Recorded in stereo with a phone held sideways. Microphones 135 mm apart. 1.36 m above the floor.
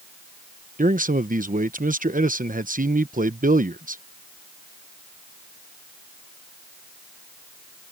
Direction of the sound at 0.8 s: 85° right.